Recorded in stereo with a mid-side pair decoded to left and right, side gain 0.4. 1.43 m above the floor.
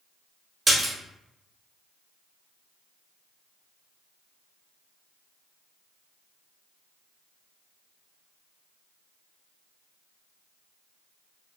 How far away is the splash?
About 1.3 m.